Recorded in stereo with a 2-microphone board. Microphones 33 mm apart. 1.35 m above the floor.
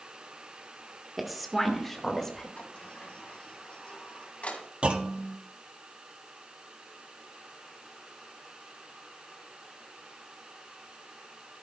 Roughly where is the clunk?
Right.